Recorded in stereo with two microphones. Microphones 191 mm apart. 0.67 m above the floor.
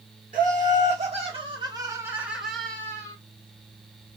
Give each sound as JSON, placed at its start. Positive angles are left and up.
{"t": 0.3, "sound": "laughter", "side_deg": -45, "distance_m": 1.6}